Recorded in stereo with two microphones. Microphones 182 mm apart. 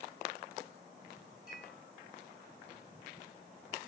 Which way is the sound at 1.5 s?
70° right (ahead or behind).